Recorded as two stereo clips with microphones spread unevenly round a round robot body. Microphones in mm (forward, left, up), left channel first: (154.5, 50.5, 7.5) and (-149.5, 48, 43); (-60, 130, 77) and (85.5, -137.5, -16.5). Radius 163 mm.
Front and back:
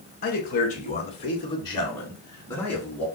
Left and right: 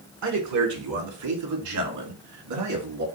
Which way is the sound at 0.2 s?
60° right.